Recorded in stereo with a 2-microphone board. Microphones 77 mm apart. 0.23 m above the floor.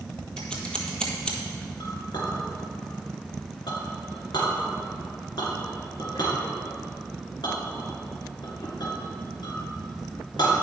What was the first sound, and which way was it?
Scissors, 10° left (ahead or behind).